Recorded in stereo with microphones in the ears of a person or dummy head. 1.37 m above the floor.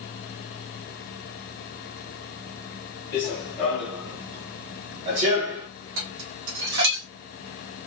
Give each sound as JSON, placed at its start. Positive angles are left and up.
{"t": 3.1, "sound": "running footsteps", "side_deg": 20, "distance_m": 1.4}
{"t": 6.0, "sound": "dishes clattering", "side_deg": -70, "distance_m": 1.3}